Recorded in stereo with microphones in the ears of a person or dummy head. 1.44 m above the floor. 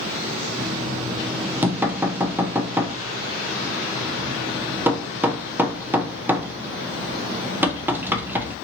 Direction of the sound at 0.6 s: 10° right (ahead or behind).